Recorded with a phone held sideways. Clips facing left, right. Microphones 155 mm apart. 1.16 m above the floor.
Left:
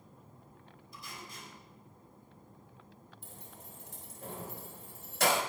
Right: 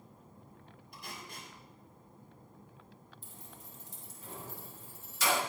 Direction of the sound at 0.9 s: 65° right (ahead or behind).